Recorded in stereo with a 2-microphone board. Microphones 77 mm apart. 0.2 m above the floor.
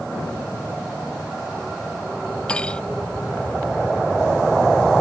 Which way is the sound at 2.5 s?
10° left (ahead or behind).